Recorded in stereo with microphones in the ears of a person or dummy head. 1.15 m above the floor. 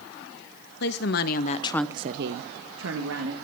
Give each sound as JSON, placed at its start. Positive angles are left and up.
{"t": 0.8, "sound": "a woman speaking", "side_deg": 60, "distance_m": 1.6}